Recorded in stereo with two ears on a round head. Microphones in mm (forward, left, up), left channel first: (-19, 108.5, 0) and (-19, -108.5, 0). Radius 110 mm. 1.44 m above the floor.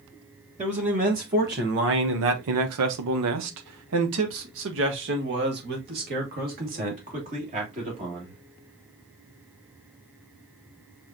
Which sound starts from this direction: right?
A man speaking, at 0.6 s.